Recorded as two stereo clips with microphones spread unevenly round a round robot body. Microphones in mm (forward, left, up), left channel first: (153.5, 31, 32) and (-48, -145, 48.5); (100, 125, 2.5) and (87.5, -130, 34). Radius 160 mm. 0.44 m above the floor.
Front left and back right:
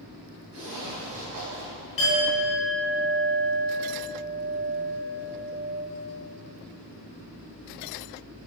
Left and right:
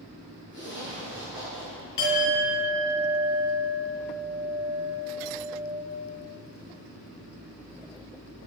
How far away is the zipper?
About 4 m.